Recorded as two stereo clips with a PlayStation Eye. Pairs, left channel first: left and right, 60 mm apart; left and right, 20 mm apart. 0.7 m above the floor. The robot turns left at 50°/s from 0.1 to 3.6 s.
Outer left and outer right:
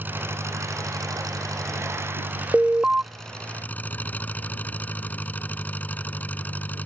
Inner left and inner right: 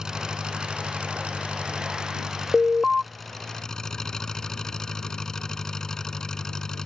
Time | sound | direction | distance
0.0 | an engine running | 35° right | ?
2.5 | an alarm | 10° right (ahead or behind) | ?